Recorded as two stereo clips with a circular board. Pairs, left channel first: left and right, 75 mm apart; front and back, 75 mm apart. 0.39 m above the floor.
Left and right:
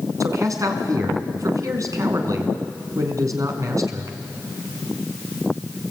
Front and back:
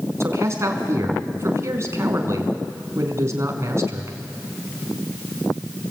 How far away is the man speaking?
About 4 m.